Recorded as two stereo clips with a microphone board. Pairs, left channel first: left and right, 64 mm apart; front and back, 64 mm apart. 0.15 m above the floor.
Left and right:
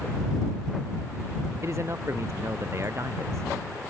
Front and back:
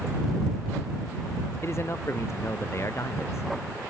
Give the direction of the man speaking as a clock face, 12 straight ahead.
2 o'clock.